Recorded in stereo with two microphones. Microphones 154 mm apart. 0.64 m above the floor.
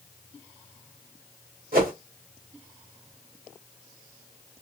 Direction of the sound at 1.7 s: 70° right (ahead or behind).